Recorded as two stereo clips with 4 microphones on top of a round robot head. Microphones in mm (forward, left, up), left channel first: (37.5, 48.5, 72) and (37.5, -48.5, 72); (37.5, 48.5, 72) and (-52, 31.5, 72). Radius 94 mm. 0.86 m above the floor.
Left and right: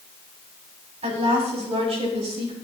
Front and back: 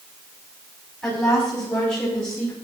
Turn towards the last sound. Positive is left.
turn(degrees=-70)